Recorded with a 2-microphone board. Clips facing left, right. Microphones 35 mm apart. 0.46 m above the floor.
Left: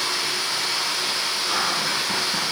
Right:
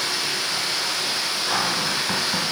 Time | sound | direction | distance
0.0 | running water | centre (ahead or behind) | 1.9 m
1.5 | a cupboard door | 65° right (ahead or behind) | 2.5 m